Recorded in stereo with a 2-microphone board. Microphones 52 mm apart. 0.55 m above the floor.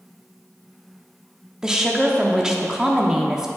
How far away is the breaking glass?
I don't hear breaking glass.